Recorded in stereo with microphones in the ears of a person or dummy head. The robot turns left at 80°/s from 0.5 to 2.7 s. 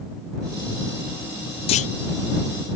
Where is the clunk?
30° left (ahead or behind); by 1.9 s 40° left (ahead or behind).